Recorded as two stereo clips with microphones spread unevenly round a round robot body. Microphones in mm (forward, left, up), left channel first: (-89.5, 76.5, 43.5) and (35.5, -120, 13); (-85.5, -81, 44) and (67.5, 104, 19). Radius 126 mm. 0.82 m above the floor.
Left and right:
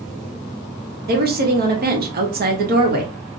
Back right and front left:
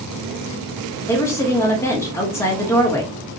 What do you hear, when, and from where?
1.1 s a woman speaking: 50° right, 0.9 m